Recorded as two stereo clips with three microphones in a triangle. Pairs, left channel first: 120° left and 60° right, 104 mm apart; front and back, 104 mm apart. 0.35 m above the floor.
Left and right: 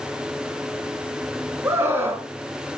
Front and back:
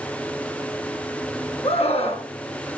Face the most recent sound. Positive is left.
turn(degrees=5)